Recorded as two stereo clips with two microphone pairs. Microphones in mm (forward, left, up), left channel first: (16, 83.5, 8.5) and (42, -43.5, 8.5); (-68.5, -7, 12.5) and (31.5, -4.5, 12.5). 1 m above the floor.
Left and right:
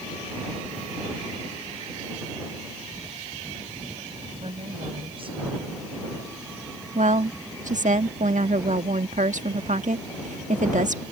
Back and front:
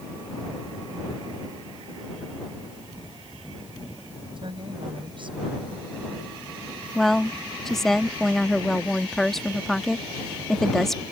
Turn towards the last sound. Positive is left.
turn(degrees=-90)